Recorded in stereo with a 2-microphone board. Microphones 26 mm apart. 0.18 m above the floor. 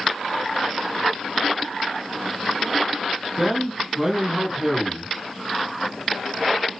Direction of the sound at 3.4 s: 25° right (ahead or behind).